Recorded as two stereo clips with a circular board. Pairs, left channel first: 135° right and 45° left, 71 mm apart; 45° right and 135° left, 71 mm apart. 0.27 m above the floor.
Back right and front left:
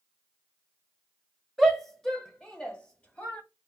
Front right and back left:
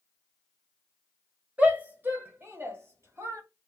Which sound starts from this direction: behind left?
A shout, at 1.6 s.